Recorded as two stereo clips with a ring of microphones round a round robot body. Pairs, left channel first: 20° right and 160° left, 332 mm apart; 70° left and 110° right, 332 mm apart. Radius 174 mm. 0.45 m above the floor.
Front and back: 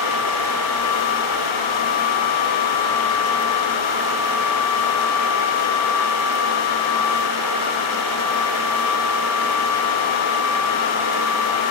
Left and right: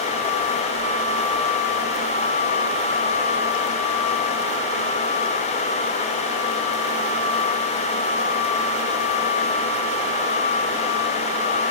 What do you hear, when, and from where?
Only background noise.